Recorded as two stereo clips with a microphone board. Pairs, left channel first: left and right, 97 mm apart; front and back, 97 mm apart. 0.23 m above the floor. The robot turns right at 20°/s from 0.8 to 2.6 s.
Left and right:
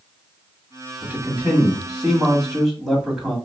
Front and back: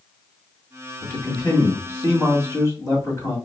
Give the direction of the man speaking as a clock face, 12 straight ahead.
1 o'clock.